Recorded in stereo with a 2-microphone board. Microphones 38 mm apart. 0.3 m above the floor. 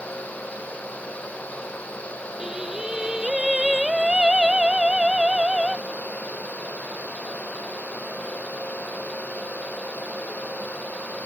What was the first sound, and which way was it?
Singing, 15° right (ahead or behind).